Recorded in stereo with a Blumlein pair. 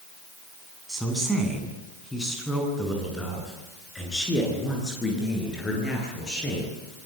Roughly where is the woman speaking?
Ahead.